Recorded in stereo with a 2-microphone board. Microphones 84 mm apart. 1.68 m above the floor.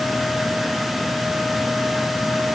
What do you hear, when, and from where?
Only background noise.